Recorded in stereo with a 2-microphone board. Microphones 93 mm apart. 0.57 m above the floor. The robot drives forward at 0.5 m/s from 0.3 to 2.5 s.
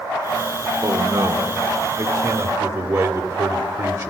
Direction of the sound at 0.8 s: 55° right (ahead or behind).